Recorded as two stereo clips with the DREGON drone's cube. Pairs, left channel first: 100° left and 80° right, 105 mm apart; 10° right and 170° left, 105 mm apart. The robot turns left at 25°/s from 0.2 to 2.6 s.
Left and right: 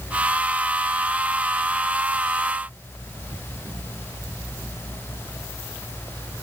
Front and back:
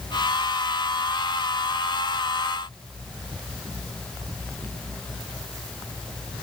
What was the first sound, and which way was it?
Only background noise.